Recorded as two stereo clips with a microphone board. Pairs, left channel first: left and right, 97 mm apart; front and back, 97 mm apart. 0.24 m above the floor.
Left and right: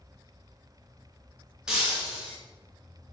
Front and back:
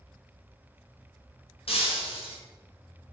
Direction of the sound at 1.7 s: 5° right.